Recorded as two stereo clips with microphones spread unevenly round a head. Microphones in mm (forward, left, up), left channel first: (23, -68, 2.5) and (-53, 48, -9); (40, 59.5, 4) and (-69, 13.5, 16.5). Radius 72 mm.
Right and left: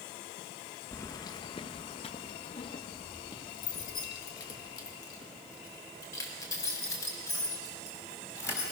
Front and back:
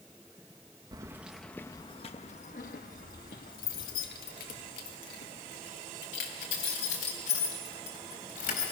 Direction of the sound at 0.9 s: 115° right.